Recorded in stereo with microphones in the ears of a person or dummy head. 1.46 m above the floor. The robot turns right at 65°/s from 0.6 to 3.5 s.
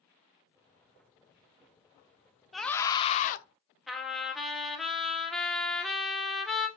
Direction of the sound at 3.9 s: Centre (ahead or behind).